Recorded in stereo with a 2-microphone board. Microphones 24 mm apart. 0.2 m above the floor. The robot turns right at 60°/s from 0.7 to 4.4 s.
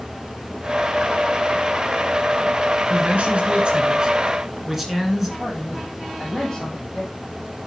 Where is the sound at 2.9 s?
100° right, 2.5 m; by 5.3 s 10° right, 2.5 m.